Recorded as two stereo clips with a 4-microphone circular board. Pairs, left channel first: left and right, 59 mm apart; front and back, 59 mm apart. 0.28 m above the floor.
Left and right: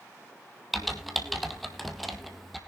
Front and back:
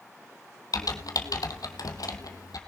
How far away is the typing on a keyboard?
About 1.9 m.